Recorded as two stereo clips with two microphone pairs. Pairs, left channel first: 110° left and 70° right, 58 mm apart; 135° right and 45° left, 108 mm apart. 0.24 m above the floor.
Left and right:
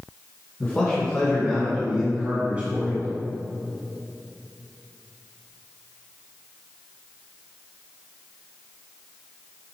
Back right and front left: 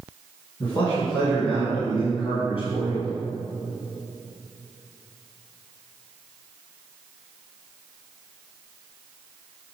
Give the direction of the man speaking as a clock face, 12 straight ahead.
6 o'clock.